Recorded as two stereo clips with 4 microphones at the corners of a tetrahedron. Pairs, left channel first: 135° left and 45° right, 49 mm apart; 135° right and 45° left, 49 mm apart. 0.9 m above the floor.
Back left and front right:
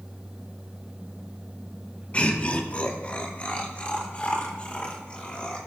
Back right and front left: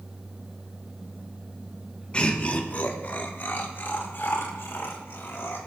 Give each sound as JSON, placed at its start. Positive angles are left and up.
{"t": 2.1, "sound": "laughter", "azimuth_deg": 180, "distance_m": 1.1}